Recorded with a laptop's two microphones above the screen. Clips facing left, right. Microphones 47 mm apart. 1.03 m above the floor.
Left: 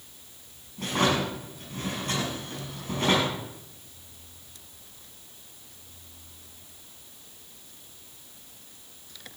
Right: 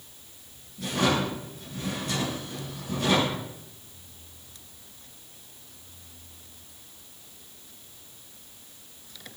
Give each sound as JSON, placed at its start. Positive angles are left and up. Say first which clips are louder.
{"t": 0.8, "sound": "a drawer", "louder": "even", "side_deg": 45, "distance_m": 6.0}